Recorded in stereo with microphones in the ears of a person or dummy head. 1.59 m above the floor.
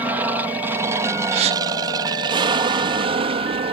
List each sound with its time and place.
0.0 s an aircraft: 10° right (ahead or behind); by 3.7 s 35° right (ahead or behind)
1.3 s a gasp: 35° right (ahead or behind)